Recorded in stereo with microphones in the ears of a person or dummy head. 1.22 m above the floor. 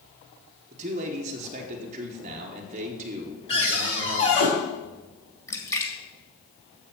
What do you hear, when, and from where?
0.7 s a man speaking: 35° right (ahead or behind), 1.2 m
3.5 s a cupboard door: 35° left (ahead or behind), 4.5 m
5.5 s a splash: 15° left (ahead or behind), 1.8 m